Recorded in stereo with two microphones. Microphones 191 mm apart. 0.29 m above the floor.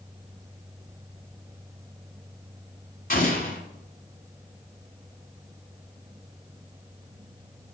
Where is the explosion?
50° left (ahead or behind), 1.5 m.